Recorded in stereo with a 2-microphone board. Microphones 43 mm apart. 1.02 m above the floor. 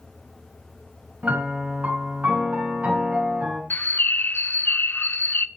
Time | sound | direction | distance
1.2 | a piano | 40° right (ahead or behind) | 3.5 m
3.7 | a bird | 50° left (ahead or behind) | 0.6 m